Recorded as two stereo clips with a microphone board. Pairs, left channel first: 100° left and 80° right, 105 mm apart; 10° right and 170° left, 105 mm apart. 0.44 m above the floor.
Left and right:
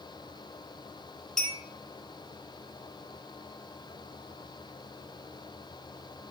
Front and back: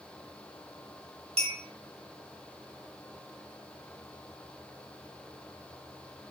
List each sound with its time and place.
1.4 s a clink: 175° right, 3 m